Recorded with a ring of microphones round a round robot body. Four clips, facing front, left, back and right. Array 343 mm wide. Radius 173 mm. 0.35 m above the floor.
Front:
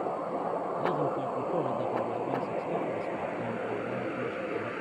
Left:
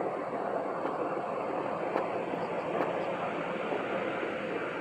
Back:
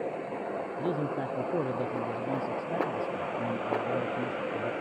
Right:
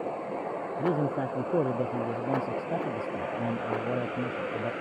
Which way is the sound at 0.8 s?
105° right.